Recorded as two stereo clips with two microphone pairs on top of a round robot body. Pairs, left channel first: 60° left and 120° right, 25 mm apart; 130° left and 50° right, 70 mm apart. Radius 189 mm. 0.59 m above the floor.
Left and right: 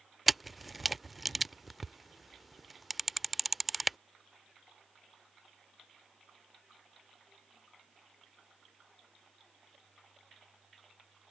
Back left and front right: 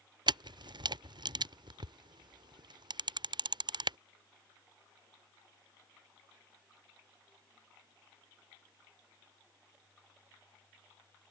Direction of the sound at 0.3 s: 35° right.